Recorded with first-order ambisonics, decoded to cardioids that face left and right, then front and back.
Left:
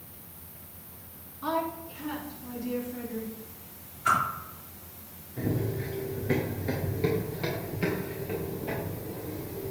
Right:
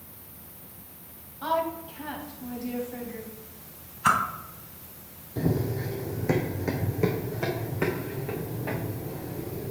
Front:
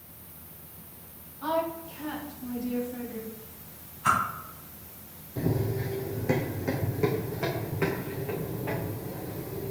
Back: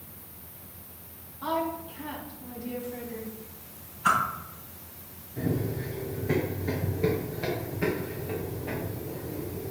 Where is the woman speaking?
85° right, 3.5 m; by 3.3 s 105° right, 4.5 m.